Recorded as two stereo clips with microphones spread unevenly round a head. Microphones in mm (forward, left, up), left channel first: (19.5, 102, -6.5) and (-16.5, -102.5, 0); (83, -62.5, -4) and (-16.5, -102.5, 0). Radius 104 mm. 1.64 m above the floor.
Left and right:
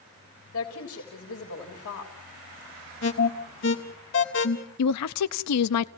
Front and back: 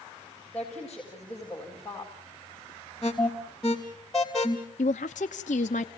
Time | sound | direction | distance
0.5 | a woman speaking | 110° left | 3.5 m
3.0 | an alarm | 110° left | 3 m
4.8 | a woman speaking | 70° left | 0.7 m